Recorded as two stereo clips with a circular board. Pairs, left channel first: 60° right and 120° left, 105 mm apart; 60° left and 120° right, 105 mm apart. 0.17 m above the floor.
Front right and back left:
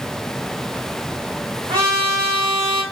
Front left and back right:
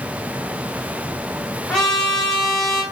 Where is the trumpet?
145° left, 4.5 m.